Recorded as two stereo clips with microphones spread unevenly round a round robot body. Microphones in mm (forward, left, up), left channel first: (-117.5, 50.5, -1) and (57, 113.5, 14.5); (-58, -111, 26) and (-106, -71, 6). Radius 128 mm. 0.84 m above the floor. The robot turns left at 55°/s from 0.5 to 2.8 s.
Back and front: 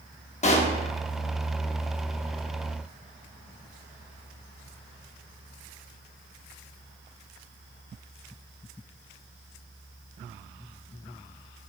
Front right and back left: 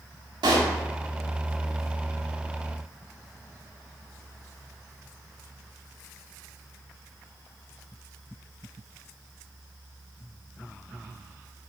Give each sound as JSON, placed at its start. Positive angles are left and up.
{"t": 0.4, "sound": "a pop", "azimuth_deg": 145, "distance_m": 0.6}